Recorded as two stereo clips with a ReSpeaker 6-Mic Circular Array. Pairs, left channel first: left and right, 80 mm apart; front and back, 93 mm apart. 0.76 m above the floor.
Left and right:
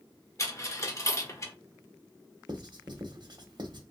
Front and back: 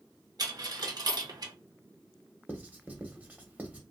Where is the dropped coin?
140° left, 0.7 m.